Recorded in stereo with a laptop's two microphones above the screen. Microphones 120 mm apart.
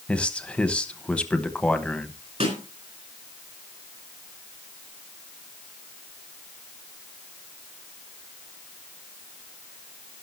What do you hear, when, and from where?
0.1 s a man speaking: 10° left (ahead or behind), 1.0 m
2.4 s a snare drum: 60° right (ahead or behind), 4 m